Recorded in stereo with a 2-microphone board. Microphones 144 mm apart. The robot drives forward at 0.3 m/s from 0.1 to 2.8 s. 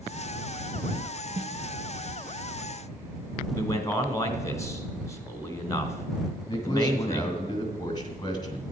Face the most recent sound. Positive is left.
turn(degrees=30)  # may be behind; listen again after turning